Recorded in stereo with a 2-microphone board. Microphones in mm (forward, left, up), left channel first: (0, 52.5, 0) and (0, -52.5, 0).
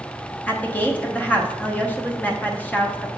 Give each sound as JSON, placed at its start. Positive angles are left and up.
{"t": 0.5, "sound": "a woman speaking", "side_deg": 15, "distance_m": 0.8}